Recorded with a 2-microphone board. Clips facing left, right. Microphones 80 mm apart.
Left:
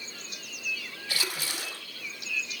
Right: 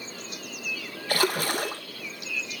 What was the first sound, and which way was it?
A splash, 50° right (ahead or behind).